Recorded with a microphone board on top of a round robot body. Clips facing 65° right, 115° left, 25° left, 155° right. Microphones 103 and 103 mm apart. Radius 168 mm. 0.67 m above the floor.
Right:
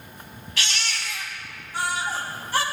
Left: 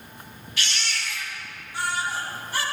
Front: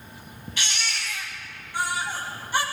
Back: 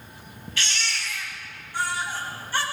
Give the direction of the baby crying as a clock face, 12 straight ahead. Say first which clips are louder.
Right 1 dB, back 1 dB; 2 o'clock.